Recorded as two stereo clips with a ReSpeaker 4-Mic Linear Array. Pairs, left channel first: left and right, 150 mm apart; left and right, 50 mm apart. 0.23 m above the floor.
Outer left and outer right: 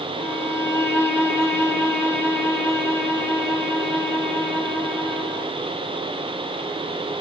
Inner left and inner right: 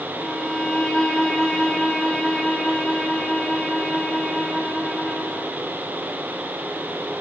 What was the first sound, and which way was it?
A violin, 15° left (ahead or behind).